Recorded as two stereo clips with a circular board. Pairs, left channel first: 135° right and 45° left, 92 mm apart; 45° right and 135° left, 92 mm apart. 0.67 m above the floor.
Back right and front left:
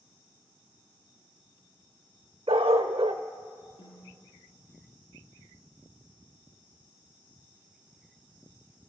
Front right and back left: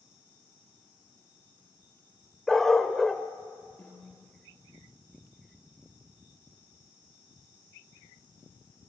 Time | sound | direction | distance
2.5 | a dog barking | 40° left | 1.0 m
3.8 | a snare drum | 115° right | 9 m